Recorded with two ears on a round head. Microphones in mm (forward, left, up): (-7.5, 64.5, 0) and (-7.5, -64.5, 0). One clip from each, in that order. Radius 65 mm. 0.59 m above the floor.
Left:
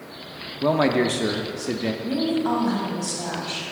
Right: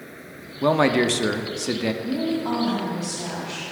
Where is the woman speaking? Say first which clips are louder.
Left 2 dB; 20° left (ahead or behind), 3 m.